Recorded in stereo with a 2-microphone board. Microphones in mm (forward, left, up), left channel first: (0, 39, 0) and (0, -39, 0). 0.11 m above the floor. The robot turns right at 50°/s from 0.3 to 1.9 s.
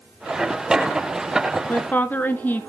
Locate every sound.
1.7 s a woman speaking: 25° left (ahead or behind), 1.1 m